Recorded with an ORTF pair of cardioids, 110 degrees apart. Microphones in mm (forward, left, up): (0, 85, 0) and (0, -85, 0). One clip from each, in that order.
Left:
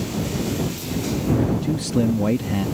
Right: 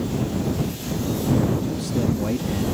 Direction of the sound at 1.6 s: 45° left.